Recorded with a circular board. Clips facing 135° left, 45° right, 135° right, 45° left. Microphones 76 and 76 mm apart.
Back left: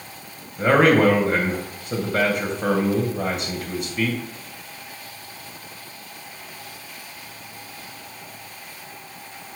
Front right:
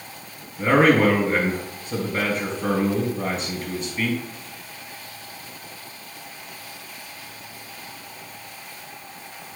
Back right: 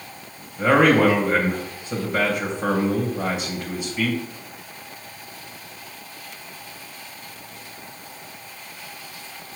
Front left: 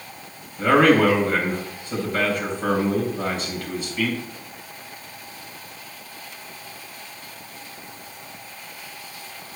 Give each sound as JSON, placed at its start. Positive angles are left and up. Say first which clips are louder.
{"t": 0.6, "sound": "a man speaking", "louder": "back left 1 dB, even", "azimuth_deg": 155, "distance_m": 3.5}